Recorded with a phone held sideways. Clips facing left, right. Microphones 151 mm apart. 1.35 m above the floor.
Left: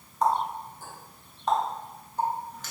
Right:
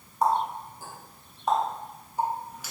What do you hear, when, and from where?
0.2 s a running tap: 10° right (ahead or behind), 1.1 m